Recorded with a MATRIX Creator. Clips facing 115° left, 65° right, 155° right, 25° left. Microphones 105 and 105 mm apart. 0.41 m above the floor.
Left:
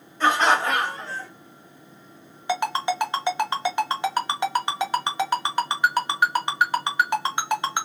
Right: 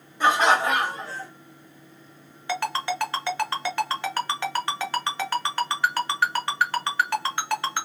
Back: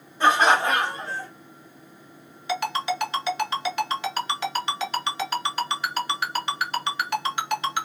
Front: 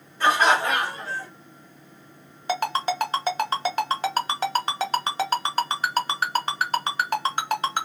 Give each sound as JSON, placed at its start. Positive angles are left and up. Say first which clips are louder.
{"t": 0.2, "sound": "laughter", "louder": "even, back 1 dB", "azimuth_deg": -125, "distance_m": 1.4}
{"t": 2.5, "sound": "a ringtone", "louder": "left 3 dB, front 1 dB", "azimuth_deg": 50, "distance_m": 0.7}